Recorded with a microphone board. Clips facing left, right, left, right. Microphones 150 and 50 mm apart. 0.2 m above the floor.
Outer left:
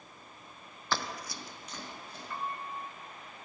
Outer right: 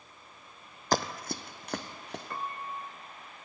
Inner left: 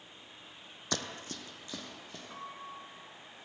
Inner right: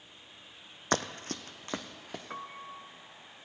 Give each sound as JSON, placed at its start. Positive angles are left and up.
{"t": 0.9, "sound": "running footsteps", "side_deg": -40, "distance_m": 0.6}
{"t": 2.3, "sound": "a piano", "side_deg": -50, "distance_m": 0.7}